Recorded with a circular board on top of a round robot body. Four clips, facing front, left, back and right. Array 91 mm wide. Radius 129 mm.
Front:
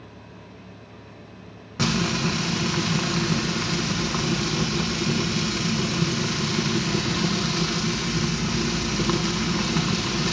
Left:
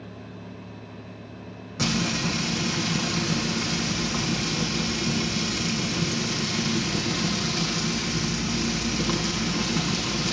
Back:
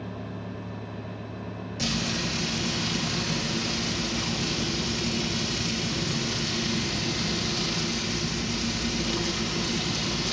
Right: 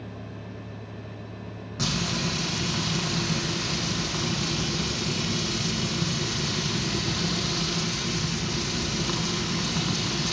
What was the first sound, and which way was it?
Frying, 5° left.